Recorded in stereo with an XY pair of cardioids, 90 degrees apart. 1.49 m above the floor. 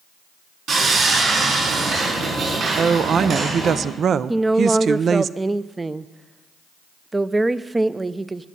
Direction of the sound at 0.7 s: 65° right.